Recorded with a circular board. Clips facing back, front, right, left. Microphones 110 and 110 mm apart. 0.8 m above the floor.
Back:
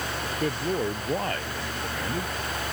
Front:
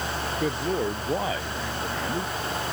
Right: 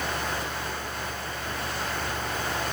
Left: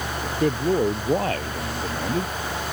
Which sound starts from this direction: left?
A man speaking, at 0.2 s.